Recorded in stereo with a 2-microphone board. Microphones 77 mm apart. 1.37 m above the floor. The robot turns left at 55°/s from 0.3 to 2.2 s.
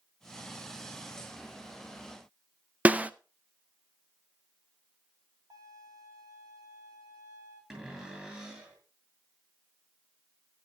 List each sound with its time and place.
2.9 s a snare drum: 20° right (ahead or behind), 0.5 m
5.5 s a violin: 65° right (ahead or behind), 8.5 m
7.7 s a cupboard door: 15° right (ahead or behind), 6 m